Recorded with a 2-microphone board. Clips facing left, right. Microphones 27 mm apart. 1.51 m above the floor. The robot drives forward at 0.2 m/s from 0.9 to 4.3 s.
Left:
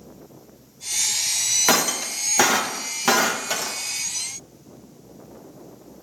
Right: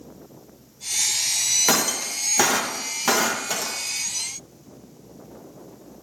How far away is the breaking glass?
About 0.7 m.